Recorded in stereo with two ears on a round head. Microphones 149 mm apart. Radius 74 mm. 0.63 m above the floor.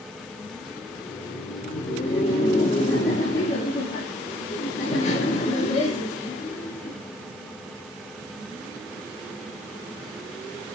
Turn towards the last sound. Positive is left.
turn(degrees=40)  # may be behind; listen again after turning